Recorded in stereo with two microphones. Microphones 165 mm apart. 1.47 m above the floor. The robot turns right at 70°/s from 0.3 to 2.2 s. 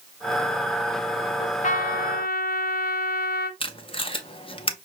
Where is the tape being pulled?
35° left (ahead or behind), 0.6 m.